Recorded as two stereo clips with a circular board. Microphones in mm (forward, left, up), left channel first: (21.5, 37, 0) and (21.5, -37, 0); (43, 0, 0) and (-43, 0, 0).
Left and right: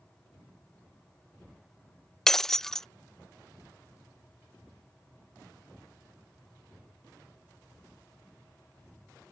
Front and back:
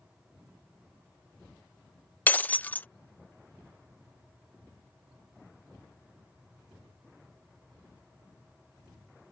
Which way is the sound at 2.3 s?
15° left.